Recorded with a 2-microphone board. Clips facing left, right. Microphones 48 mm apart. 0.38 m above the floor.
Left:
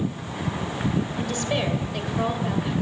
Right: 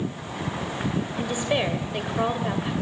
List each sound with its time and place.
1.2 s a woman speaking: 15° right (ahead or behind), 1.7 m